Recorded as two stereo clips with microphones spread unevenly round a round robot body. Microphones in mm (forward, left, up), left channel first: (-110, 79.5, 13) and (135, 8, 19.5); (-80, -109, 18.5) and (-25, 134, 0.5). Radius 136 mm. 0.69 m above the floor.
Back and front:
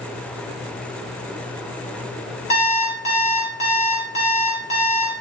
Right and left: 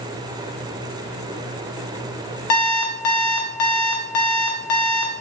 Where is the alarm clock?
130° right, 0.6 m.